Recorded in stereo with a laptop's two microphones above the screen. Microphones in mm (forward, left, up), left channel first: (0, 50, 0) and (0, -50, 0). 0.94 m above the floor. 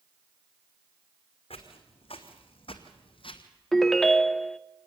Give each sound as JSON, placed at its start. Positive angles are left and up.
{"t": 1.5, "sound": "footsteps", "side_deg": 65, "distance_m": 3.0}
{"t": 3.7, "sound": "a ringtone", "side_deg": 5, "distance_m": 0.6}